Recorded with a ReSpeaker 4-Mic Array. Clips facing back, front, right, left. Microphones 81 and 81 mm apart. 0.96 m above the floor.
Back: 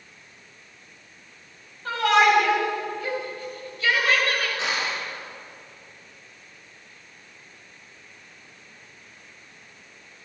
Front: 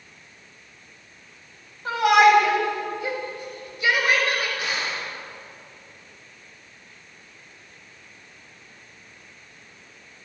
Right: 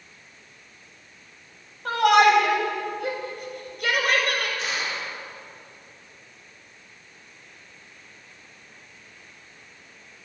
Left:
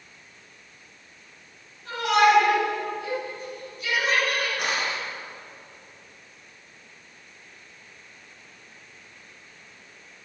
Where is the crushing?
115° left, 7.5 m.